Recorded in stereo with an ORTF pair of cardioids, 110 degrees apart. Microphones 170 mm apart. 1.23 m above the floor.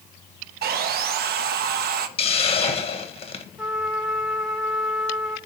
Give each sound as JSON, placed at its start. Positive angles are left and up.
{"t": 0.6, "sound": "sawing", "azimuth_deg": -60, "distance_m": 0.9}
{"t": 2.2, "sound": "a hiss", "azimuth_deg": 35, "distance_m": 1.3}
{"t": 3.6, "sound": "a trumpet", "azimuth_deg": 0, "distance_m": 2.5}